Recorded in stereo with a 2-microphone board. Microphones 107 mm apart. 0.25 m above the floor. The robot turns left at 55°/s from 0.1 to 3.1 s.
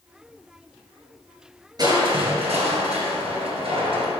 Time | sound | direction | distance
1.8 | crushing | 40° right | 2 m